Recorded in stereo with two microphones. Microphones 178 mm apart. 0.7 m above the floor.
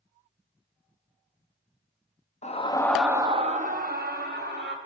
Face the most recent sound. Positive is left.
turn(degrees=-70)  # may be behind; listen again after turning